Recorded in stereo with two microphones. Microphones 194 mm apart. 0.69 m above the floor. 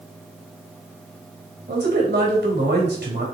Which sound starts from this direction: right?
A man speaking, at 1.7 s.